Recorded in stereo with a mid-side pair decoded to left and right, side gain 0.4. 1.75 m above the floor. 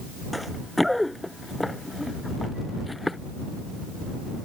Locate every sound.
0.3 s running footsteps: 5° left; by 3.2 s 15° left